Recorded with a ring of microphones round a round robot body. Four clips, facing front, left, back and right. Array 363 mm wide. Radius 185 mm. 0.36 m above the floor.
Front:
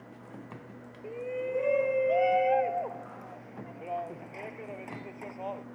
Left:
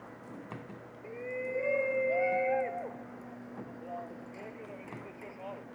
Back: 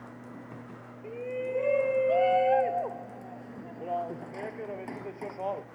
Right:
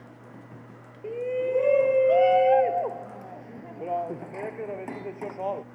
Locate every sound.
1.0 s a shout: 90° right; by 5.7 s 110° right